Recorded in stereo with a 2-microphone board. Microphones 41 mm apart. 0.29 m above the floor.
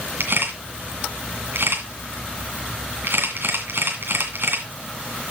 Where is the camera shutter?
70° right (ahead or behind), 2 m.